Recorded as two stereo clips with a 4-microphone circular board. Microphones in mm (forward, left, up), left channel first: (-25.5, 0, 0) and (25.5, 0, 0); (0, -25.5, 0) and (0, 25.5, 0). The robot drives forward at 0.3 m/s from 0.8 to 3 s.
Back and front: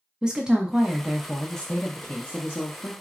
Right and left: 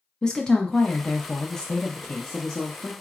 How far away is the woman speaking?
About 0.5 m.